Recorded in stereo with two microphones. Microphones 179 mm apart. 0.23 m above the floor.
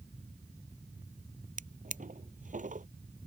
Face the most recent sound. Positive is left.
turn(degrees=-45)  # may be behind; listen again after turning